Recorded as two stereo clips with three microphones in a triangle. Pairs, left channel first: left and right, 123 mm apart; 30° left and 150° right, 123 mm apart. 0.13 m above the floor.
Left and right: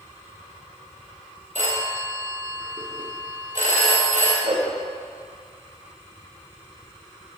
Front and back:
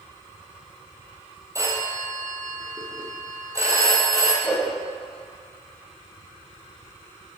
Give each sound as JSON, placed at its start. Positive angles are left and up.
{"t": 1.6, "sound": "a phone ringing", "azimuth_deg": -85, "distance_m": 2.5}
{"t": 4.4, "sound": "a whoosh", "azimuth_deg": -60, "distance_m": 3.0}